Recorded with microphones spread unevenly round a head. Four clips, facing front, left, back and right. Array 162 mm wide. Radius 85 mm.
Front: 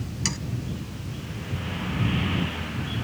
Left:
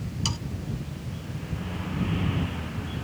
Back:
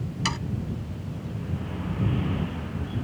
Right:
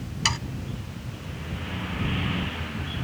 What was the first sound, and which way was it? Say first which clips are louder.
Sawing: right 7 dB, back 4 dB; 95° right.